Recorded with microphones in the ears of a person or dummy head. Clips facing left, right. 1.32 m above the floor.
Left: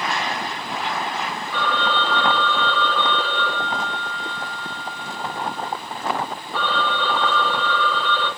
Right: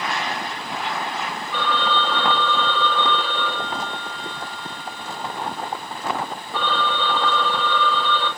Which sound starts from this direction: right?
A phone ringing, at 1.5 s.